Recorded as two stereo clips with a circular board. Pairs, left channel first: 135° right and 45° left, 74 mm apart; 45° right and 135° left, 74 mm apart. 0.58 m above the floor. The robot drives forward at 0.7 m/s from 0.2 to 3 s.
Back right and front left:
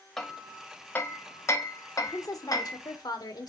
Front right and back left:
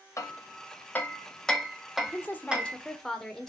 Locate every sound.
0.2 s hammering: 50° right, 1.2 m; by 2.8 s 155° right, 1.7 m
2.0 s a woman speaking: 100° right, 1.4 m; by 3.5 s 125° right, 1.6 m